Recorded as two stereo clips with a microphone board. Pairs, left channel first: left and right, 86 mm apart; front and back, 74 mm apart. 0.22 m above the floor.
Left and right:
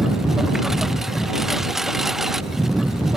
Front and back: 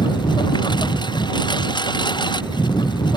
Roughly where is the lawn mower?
Ahead.